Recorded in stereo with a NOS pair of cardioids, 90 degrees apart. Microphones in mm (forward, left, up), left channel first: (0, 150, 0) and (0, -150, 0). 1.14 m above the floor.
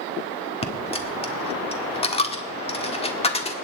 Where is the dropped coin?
20° left, 1.4 m.